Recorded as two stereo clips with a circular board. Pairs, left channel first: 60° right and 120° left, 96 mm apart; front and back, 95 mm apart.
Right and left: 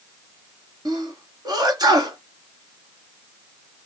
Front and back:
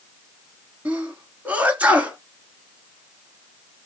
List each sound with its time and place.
0.8 s a sneeze: 115° left, 2 m